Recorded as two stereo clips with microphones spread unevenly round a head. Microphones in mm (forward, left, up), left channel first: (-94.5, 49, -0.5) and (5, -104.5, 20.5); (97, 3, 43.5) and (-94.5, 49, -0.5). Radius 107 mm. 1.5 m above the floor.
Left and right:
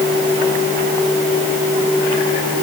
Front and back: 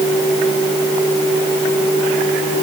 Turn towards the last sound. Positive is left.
No sound to turn to.